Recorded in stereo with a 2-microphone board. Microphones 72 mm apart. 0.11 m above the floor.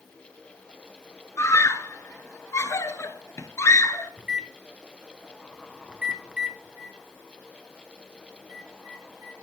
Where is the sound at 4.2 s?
10° right (ahead or behind), 0.9 m.